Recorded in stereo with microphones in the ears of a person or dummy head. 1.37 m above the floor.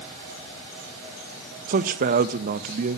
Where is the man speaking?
50° right (ahead or behind), 0.9 m.